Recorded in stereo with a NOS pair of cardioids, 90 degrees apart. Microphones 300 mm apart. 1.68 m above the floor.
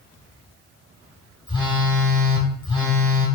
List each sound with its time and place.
1.5 s a phone buzzing: 15° left, 1.2 m